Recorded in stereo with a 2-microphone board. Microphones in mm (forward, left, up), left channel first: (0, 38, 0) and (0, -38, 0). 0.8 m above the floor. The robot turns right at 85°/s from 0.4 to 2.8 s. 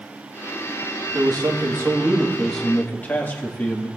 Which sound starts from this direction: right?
A man speaking, at 1.1 s.